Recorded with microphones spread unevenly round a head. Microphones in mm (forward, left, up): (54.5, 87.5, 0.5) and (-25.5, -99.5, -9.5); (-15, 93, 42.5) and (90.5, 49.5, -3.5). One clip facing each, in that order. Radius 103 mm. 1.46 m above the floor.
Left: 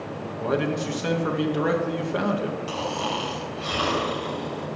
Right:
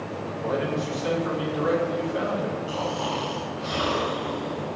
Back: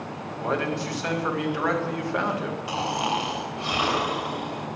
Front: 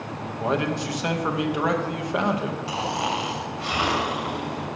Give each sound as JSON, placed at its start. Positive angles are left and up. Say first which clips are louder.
{"t": 0.4, "sound": "a man speaking", "louder": "left 2 dB, front 2 dB", "azimuth_deg": 45, "distance_m": 2.0}
{"t": 2.7, "sound": "snoring", "louder": "right 1 dB, back 2 dB", "azimuth_deg": 100, "distance_m": 3.0}